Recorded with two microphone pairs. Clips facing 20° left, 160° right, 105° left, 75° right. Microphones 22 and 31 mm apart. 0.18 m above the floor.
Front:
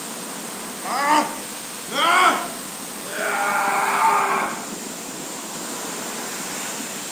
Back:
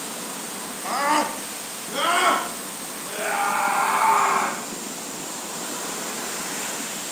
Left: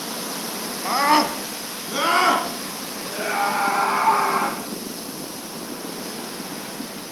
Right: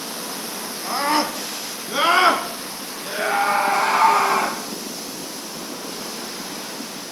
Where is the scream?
95° left, 1.1 m; by 4.6 s 35° right, 3 m.